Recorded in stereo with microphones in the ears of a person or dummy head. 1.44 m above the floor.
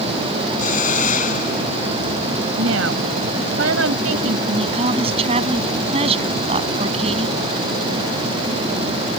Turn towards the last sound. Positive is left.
turn(degrees=-35)  # may be behind; listen again after turning